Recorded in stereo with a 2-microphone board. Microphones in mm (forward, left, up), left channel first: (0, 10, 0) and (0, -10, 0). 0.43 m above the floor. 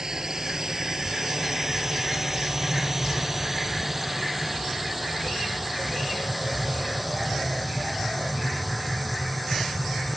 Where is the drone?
35° right (ahead or behind); by 10.2 s centre (ahead or behind).